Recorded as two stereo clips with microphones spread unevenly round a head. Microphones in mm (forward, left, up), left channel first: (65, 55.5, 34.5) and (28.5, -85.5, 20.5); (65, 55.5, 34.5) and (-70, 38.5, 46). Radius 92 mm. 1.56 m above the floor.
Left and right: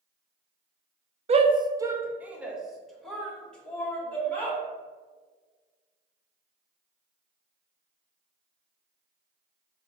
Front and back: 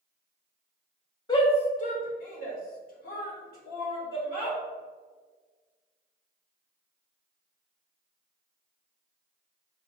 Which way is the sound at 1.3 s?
60° right.